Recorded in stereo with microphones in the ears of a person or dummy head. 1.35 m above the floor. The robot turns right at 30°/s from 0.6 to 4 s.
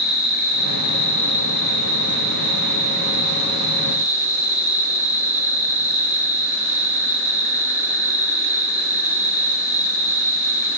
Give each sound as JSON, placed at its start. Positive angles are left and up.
{"t": 0.0, "sound": "an insect", "azimuth_deg": 60, "distance_m": 8.5}